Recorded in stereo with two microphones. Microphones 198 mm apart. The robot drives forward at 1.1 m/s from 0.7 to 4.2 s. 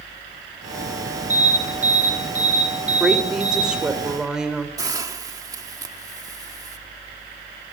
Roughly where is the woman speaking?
Centre.